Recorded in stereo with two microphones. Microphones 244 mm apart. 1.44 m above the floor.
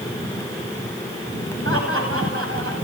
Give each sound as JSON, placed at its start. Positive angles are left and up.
{"t": 1.6, "sound": "laughter", "side_deg": -60, "distance_m": 9.0}